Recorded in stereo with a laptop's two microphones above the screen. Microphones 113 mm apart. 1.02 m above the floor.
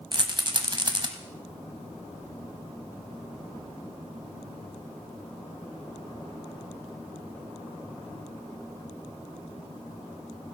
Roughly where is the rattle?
Right.